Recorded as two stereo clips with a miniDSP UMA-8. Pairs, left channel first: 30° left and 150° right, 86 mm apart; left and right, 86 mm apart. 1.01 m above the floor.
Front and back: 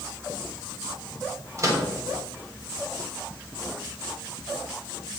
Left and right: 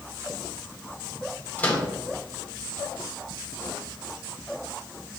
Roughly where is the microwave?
Behind.